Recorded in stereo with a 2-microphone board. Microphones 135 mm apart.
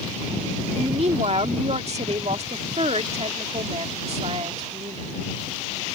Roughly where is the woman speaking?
Right.